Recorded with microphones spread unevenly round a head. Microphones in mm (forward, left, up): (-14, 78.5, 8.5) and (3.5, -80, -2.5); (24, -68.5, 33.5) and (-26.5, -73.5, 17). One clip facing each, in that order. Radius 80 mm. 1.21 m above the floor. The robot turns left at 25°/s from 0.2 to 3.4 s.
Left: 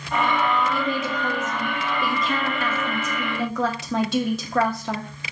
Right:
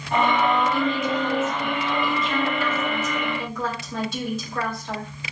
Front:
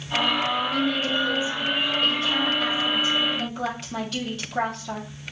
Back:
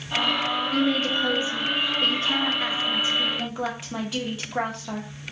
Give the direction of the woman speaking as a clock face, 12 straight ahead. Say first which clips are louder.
Right 2 dB, back 1 dB; 6 o'clock.